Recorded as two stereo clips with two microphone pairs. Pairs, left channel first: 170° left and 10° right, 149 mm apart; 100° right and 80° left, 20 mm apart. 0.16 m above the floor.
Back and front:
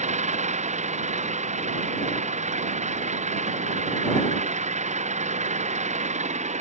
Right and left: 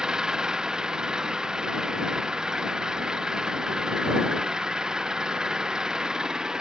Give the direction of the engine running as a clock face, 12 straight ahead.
11 o'clock.